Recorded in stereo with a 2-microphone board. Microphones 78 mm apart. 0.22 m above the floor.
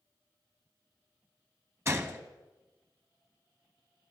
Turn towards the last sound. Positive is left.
turn(degrees=-30)  # may be behind; listen again after turning